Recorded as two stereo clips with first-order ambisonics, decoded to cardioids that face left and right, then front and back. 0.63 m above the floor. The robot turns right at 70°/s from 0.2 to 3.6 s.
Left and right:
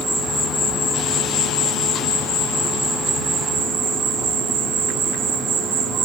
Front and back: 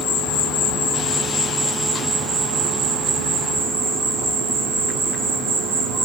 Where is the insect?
15° right, 0.9 m; by 6.0 s 140° right, 0.9 m.